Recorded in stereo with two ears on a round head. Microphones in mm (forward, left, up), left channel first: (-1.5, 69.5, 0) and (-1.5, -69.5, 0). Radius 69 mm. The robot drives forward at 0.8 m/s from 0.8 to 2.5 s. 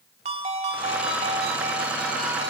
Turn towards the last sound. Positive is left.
turn(degrees=-25)  # may be behind; listen again after turning